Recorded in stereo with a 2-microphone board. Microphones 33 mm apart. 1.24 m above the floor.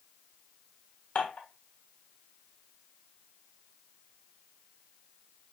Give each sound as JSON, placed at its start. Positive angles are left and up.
{"t": 1.1, "sound": "dishes clattering", "side_deg": 55, "distance_m": 1.3}